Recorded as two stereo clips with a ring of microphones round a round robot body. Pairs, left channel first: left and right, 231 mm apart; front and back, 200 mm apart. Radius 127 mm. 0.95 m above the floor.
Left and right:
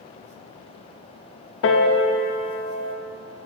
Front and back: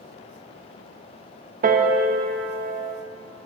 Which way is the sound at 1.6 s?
130° left.